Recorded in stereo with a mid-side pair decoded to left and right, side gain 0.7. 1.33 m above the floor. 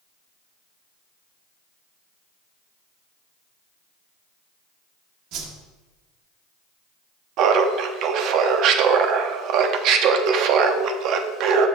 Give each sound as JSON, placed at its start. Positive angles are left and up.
{"t": 5.3, "sound": "a whoosh", "azimuth_deg": -65, "distance_m": 1.2}
{"t": 7.4, "sound": "laughter", "azimuth_deg": -55, "distance_m": 0.9}